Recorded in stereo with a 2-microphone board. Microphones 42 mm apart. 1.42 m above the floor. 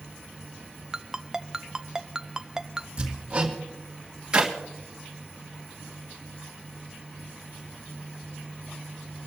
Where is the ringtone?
15° right (ahead or behind), 0.5 m.